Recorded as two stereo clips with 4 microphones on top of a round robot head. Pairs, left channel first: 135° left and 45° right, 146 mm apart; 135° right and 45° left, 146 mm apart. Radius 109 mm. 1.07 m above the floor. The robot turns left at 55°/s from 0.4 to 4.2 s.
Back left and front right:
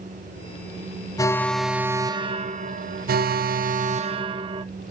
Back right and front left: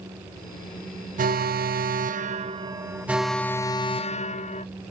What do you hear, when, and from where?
1.2 s an alarm: 70° left, 0.7 m; by 4.7 s 100° right, 0.7 m